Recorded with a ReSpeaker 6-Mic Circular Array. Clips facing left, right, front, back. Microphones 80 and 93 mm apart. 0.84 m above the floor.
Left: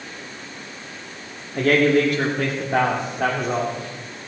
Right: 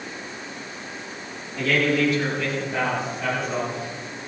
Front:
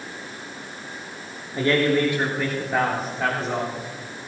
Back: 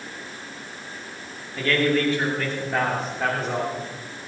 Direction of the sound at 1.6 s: 60° left.